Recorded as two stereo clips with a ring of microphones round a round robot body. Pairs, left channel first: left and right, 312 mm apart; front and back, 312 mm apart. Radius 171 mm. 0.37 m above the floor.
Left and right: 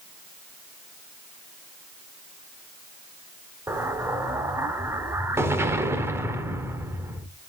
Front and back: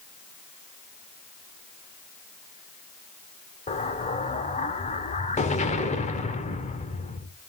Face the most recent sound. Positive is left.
turn(degrees=-20)